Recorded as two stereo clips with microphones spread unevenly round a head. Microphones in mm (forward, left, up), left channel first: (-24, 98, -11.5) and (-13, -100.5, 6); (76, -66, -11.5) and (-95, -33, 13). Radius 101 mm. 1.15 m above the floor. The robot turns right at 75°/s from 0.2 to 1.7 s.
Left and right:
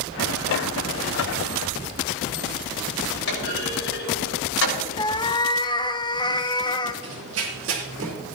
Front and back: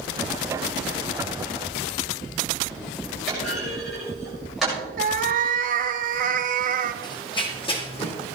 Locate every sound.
3.3 s a clunk: 80° left, 5.5 m
5.0 s a cat meowing: 160° left, 0.7 m
7.0 s running footsteps: 80° right, 2.5 m; by 8.1 s 70° right, 3.5 m